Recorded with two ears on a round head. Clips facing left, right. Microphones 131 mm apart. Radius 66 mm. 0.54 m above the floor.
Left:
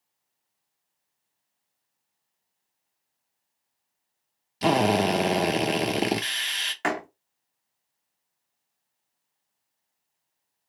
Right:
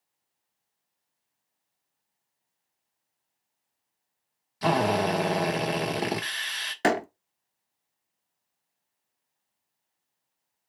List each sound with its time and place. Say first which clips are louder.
4.6 s a drill: left 2 dB; 25° left (ahead or behind), 0.8 m
6.8 s a door slam: right 4 dB; 40° right (ahead or behind), 0.7 m